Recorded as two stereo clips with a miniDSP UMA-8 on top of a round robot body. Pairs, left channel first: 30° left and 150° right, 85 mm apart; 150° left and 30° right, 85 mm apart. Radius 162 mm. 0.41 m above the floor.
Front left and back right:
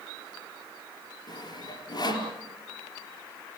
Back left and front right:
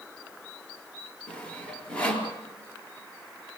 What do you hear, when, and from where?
1.3 s sawing: 70° left, 4 m